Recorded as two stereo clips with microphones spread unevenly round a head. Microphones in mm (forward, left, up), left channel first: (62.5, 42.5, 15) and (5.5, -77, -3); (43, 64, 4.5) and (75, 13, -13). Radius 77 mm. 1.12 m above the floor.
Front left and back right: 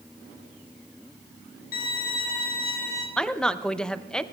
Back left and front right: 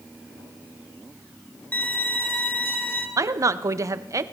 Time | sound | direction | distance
1.7 | a violin | 65° left | 1.8 m
3.2 | a woman speaking | 20° right | 0.5 m